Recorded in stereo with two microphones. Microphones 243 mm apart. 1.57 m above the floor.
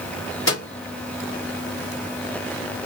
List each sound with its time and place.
0.5 s a microwave: 65° left (ahead or behind), 2 m